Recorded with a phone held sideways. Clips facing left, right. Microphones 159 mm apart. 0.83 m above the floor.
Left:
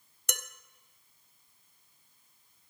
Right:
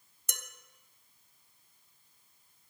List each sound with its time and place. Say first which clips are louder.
0.3 s dishes clattering: left 8 dB; 70° left (ahead or behind), 0.5 m